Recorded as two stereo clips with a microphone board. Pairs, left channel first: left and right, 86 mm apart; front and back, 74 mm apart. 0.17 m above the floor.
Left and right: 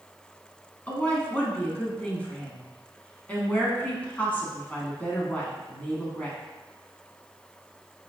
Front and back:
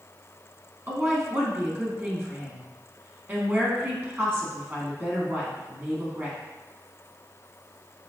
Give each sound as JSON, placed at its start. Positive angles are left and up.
{"t": 0.9, "sound": "a woman speaking", "azimuth_deg": 150, "distance_m": 1.4}